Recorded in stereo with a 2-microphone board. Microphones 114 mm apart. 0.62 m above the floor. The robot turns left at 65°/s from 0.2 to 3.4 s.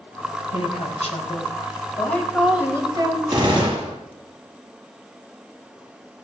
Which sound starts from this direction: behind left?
A woman speaking, at 0.5 s.